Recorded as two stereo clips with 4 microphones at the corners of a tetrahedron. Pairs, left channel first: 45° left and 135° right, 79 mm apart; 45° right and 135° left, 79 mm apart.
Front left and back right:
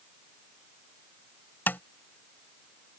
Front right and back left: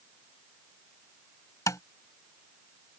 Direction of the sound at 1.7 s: 15° right.